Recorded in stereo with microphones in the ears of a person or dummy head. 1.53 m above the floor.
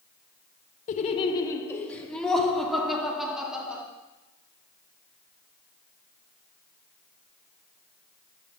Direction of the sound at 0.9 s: 35° left (ahead or behind).